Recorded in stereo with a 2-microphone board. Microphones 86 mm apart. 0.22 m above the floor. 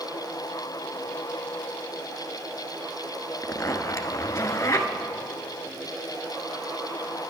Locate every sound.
3.4 s a zipper: 40° left (ahead or behind), 1.1 m